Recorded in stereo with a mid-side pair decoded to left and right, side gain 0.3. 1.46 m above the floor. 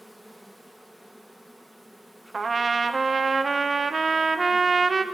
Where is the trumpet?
40° right, 1.4 m.